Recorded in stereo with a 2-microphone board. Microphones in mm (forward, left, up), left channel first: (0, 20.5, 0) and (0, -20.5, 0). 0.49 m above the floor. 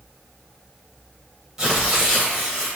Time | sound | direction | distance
1.6 | tearing paper | 15° right (ahead or behind) | 1.3 m